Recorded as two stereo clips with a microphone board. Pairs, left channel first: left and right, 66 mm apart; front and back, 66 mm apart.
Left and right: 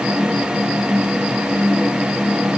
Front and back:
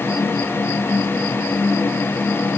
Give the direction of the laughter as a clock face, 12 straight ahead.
No laughter in this recording.